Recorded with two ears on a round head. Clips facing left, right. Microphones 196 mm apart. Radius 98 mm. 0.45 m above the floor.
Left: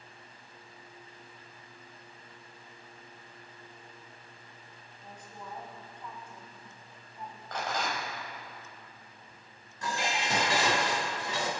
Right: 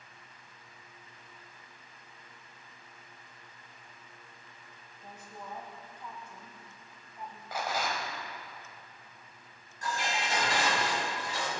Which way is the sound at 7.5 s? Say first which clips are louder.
Even; 10° right (ahead or behind).